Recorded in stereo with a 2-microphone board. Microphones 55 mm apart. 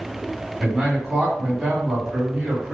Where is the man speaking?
10° right (ahead or behind), 1.4 m.